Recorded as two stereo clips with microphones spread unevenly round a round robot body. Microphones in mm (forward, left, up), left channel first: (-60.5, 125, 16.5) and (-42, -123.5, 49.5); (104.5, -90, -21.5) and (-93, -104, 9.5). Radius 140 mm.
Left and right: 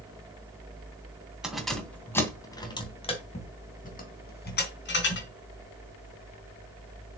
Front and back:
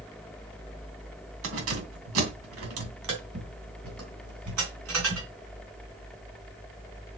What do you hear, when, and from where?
1.4 s keys jangling: 175° right, 2.5 m; by 5.3 s 135° left, 3.5 m